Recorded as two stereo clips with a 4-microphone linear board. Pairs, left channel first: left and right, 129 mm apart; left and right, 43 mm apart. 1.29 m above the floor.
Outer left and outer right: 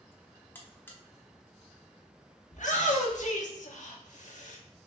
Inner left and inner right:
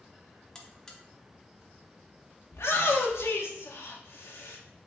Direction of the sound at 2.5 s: 80° left.